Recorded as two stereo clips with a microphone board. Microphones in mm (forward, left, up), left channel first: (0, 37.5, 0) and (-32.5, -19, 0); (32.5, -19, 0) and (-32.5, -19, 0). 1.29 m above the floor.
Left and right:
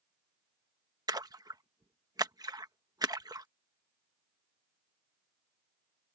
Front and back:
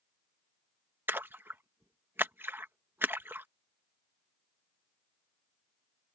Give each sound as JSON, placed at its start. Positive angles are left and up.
{"t": 1.1, "sound": "a splash", "azimuth_deg": -120}